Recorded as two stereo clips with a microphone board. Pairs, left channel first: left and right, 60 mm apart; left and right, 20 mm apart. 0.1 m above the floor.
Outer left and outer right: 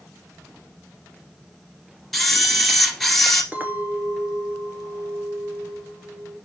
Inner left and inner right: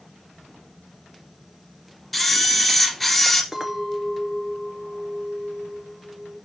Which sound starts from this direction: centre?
A camera shutter, at 2.1 s.